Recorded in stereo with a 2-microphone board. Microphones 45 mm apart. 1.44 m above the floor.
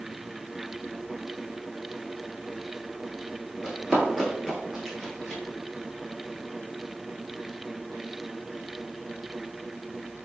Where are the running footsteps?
5° right (ahead or behind), 1.5 m; by 5.4 s centre (ahead or behind), 1.6 m.